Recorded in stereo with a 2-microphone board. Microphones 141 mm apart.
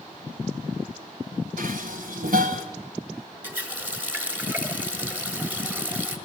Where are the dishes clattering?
75° right (ahead or behind), 1.6 m.